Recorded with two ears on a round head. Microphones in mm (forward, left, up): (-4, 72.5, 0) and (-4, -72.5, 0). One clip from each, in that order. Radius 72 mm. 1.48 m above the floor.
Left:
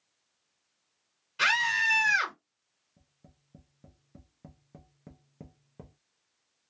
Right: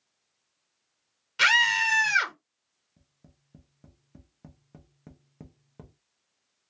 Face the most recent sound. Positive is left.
turn(degrees=-15)  # may be behind; listen again after turning